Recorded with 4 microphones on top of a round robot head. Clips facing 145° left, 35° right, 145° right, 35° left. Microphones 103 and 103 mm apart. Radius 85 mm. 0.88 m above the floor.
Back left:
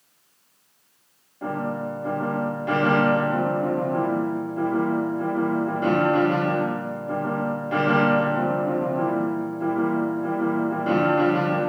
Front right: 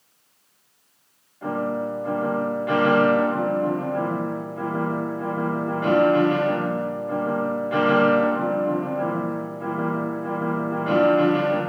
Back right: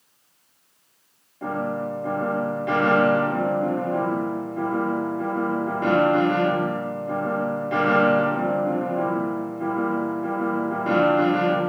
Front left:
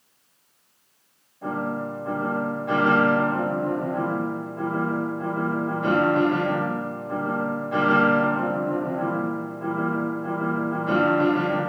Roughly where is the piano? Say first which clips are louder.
Front right 2 dB, back right 1 dB; behind right.